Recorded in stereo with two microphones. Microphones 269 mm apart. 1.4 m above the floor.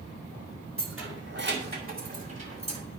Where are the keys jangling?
50° right (ahead or behind), 2 m; by 2.8 s 25° right (ahead or behind), 3 m.